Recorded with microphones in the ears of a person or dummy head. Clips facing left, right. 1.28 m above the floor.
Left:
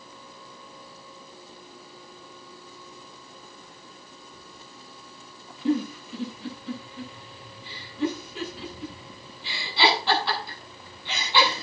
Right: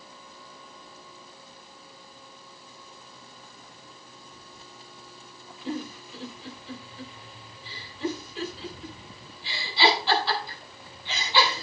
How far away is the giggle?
About 8.5 m.